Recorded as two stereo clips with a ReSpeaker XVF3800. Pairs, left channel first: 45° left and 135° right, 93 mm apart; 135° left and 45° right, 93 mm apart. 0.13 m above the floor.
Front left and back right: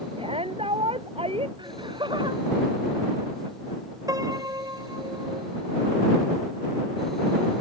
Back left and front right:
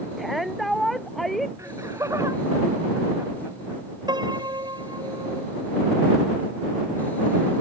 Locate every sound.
0.2 s a shout: 135° right
1.6 s laughter: 100° right
4.1 s a piano: 85° right